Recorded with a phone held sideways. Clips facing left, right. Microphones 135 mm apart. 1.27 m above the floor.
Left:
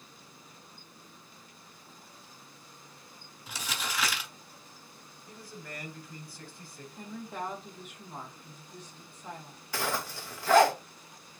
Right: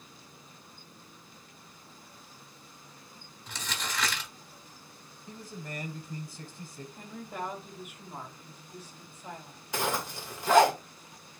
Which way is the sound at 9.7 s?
20° right (ahead or behind).